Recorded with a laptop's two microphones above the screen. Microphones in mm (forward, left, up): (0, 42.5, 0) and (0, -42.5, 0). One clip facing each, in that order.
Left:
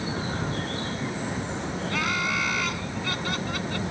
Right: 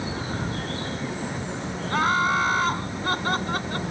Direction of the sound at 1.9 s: 40° right (ahead or behind).